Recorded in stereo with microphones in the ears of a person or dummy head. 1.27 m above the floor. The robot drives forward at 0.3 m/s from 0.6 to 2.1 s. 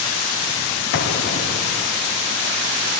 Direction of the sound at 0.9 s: 65° left (ahead or behind).